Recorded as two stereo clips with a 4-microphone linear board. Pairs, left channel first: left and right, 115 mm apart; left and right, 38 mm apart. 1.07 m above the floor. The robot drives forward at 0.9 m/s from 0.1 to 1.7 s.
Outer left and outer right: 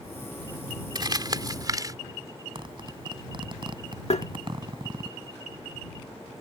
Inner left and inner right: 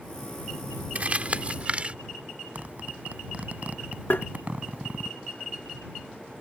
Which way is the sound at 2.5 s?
45° right (ahead or behind).